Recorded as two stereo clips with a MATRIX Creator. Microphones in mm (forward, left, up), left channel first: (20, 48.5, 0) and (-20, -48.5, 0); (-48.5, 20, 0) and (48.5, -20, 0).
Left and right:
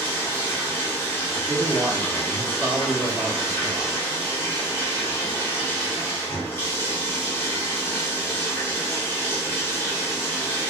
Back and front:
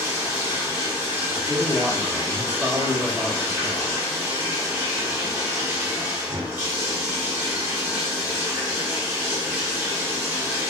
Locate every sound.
0.0 s running water: 25° left, 1.1 m
1.3 s a man speaking: 25° left, 0.8 m